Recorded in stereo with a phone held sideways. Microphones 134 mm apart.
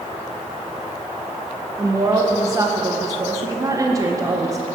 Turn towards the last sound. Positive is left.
turn(degrees=-25)  # may be behind; listen again after turning